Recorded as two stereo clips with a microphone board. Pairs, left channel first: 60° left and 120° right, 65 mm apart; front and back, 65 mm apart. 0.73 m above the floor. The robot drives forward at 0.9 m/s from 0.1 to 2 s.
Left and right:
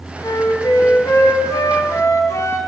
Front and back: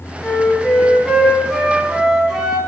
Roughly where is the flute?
Left.